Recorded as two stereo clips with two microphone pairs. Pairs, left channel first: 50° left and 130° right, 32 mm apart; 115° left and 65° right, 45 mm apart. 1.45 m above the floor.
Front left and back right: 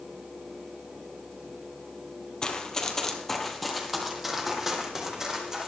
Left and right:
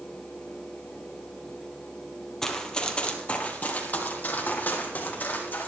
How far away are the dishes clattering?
I don't hear dishes clattering.